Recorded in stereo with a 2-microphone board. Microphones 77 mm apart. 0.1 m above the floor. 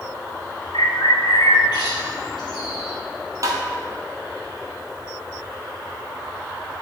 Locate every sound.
0.7 s a bird: 75° left (ahead or behind), 1.4 m
3.4 s tapping: 45° right (ahead or behind), 1.2 m